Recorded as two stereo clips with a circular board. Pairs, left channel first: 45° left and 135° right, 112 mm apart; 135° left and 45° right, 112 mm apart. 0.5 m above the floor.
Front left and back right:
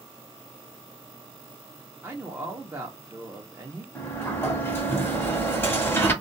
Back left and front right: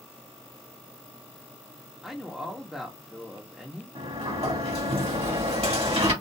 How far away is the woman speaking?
About 0.7 m.